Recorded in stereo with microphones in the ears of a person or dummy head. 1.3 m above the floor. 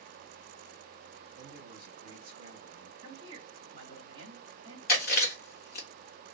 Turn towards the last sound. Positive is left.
turn(degrees=50)  # may be behind; listen again after turning